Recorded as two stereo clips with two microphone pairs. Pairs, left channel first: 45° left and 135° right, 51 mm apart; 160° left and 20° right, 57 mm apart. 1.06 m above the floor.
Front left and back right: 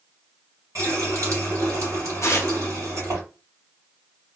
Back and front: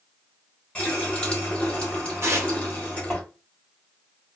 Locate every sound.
0.8 s a running tap: 130° right, 1.3 m
2.2 s tearing paper: 20° left, 0.8 m